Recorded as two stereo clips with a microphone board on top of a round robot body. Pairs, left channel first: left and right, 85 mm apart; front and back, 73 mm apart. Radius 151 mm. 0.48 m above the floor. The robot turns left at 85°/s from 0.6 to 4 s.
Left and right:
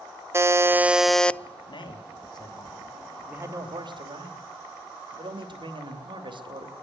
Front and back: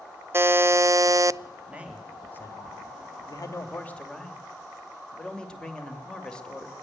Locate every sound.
0.3 s a buzzer: 135° right, 0.6 m; by 1.4 s 155° left, 0.6 m
1.7 s a man speaking: 120° left, 3 m; by 6.7 s 80° right, 3 m